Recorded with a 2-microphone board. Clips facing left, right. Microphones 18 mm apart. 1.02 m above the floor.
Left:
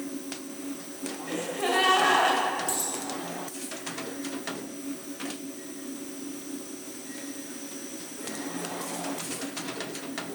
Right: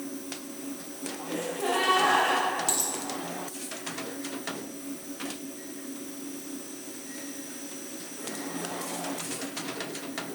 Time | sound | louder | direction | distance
1.3 | a gasp | left 1 dB | 60° left (ahead or behind) | 1.8 m
2.7 | a dropped coin | right 1 dB | 30° right (ahead or behind) | 1.7 m